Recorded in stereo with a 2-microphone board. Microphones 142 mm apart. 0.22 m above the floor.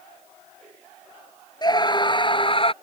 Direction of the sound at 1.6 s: 30° left (ahead or behind).